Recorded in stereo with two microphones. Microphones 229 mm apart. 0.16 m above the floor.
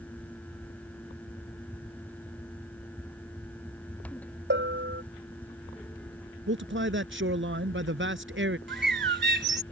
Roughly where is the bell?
Right.